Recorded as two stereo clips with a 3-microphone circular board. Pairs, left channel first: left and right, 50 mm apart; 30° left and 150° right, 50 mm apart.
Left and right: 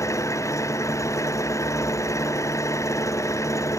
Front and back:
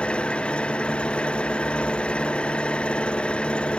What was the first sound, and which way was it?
An engine running, 100° left.